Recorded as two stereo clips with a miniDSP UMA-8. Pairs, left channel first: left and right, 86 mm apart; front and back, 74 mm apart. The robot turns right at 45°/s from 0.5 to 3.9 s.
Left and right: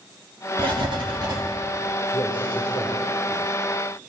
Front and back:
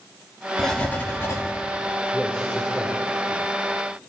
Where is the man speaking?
65° left, 4.5 m; by 3.5 s 125° left, 4.5 m.